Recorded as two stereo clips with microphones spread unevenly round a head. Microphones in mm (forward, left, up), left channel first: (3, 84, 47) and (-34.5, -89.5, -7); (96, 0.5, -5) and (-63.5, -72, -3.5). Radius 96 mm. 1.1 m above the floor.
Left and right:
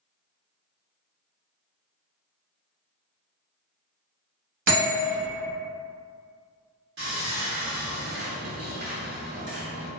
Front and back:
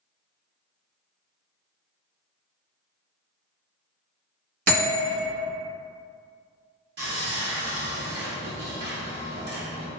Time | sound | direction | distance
4.7 | a bell | 150° right | 1.3 m
7.0 | sawing | 130° right | 1.5 m